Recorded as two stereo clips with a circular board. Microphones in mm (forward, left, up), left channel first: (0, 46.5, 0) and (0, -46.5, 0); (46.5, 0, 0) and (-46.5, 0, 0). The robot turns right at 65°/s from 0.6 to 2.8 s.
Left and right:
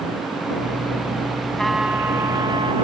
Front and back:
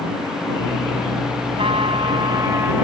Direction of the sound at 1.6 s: 170° left.